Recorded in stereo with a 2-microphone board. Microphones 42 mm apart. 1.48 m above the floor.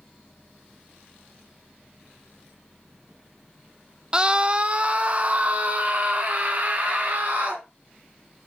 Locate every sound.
4.1 s a scream: 20° right (ahead or behind), 0.6 m; by 7.6 s 40° right (ahead or behind), 3 m